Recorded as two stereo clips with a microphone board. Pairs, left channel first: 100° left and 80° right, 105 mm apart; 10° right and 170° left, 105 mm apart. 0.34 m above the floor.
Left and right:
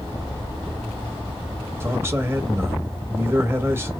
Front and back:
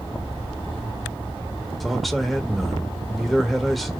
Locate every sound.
1.8 s a man speaking: 100° right, 0.9 m